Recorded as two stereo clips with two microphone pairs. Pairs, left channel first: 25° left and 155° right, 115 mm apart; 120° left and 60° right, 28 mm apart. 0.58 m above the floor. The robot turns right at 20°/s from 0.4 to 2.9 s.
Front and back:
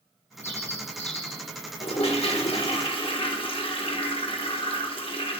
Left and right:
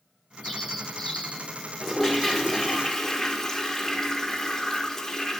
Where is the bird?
30° left, 2.5 m; by 1.5 s 50° left, 2.5 m.